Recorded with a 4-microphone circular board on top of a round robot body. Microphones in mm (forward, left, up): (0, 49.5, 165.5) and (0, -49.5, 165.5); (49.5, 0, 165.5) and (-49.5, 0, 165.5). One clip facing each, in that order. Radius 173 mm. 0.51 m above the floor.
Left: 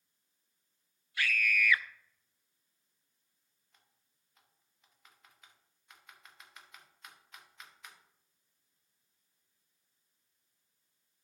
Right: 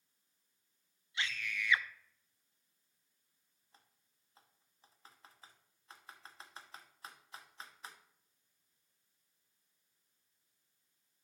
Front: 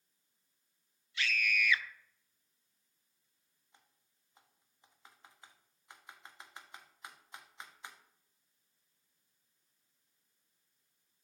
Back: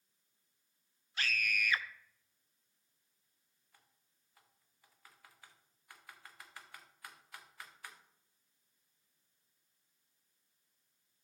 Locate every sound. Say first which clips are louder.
1.2 s a scream: left 8 dB, front 3 dB; 150° right, 0.8 m
3.7 s typing on a keyboard: right 4 dB, front 2 dB; 55° right, 1.5 m